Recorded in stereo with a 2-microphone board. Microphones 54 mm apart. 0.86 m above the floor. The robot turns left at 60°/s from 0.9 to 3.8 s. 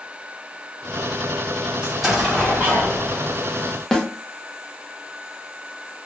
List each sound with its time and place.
1.8 s an explosion: 160° right, 1.4 m; by 3.4 s 105° left, 1.4 m
3.9 s a snare drum: 10° left (ahead or behind), 0.7 m